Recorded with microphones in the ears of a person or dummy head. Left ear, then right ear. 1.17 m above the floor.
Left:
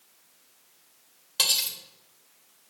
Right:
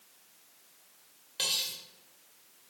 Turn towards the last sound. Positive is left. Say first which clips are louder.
# left 6 dB
turn(degrees=25)  # may be behind; listen again after turning